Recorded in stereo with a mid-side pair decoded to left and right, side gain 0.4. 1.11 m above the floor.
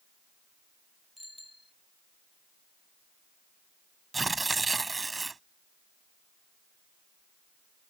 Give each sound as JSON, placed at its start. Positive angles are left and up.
{"t": 1.2, "sound": "a bicycle bell", "azimuth_deg": 10}
{"t": 4.1, "sound": "tearing paper", "azimuth_deg": -25}